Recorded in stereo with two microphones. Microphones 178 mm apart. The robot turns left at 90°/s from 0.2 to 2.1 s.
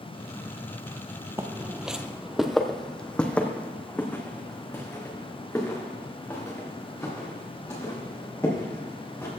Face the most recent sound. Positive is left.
turn(degrees=15)  # may be behind; listen again after turning